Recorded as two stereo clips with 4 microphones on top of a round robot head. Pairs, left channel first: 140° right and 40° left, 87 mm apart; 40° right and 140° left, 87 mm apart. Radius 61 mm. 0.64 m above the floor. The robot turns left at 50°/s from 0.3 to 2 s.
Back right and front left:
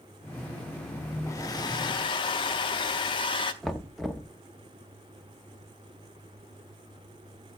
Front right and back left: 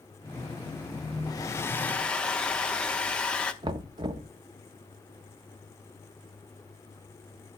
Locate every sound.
1.3 s a hair dryer: 85° right, 0.7 m; by 3.5 s 120° right, 0.7 m
3.6 s knocking: 130° left, 0.8 m